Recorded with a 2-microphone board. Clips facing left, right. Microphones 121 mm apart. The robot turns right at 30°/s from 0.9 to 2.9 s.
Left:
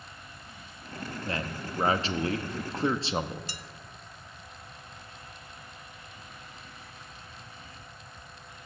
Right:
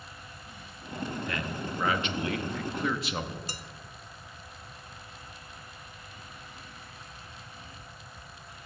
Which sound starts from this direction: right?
Dishes clattering, at 3.5 s.